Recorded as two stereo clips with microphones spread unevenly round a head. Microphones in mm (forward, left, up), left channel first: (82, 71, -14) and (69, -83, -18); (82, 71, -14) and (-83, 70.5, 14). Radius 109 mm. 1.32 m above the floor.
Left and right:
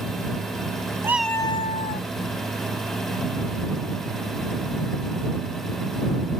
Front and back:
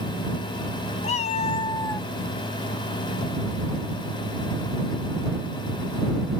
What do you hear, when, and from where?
1.0 s a cat meowing: 35° right; by 2.1 s 80° left